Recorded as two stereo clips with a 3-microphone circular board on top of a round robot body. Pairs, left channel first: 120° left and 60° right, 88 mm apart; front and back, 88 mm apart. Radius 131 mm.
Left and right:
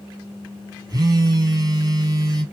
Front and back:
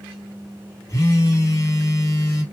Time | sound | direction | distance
0.9 | a phone buzzing | 45° right | 2 m